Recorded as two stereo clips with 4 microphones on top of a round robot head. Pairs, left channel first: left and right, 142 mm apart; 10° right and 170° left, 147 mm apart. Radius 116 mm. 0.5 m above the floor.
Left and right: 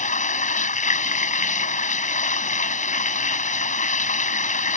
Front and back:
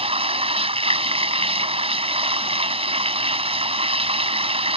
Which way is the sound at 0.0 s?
120° left.